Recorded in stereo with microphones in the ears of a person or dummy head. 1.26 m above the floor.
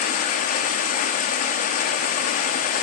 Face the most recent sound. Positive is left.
turn(degrees=45)  # may be behind; listen again after turning